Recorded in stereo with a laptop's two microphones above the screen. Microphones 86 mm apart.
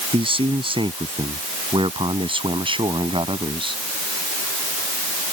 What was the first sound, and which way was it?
A man speaking, 80° right.